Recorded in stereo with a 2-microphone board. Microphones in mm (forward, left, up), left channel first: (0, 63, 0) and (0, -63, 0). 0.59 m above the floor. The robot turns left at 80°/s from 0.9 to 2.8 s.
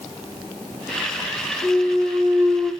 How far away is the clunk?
About 1.8 m.